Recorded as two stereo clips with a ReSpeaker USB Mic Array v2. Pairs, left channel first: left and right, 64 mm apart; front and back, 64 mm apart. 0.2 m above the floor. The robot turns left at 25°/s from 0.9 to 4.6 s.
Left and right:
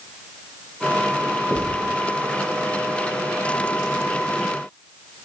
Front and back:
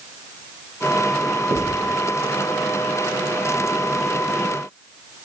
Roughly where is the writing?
Behind.